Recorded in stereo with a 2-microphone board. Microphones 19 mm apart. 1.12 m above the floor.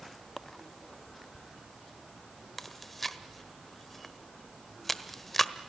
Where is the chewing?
10° left (ahead or behind), 1.3 m.